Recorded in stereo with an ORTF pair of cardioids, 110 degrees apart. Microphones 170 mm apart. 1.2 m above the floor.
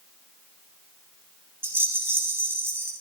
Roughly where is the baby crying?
I don't hear a baby crying.